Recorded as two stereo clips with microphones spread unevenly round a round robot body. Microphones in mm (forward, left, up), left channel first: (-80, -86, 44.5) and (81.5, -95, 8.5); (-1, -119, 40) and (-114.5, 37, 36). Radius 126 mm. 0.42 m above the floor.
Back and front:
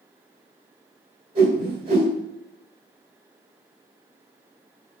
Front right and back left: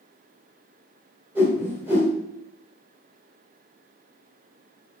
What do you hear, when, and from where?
1.4 s a whoosh: 45° left, 2.5 m